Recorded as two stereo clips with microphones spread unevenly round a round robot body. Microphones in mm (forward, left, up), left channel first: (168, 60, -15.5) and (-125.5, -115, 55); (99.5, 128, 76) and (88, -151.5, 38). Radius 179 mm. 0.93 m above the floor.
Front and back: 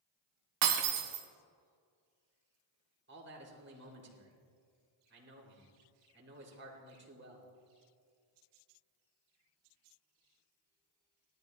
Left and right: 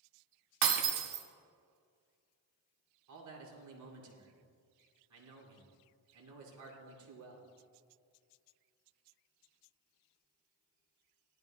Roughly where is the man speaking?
Right.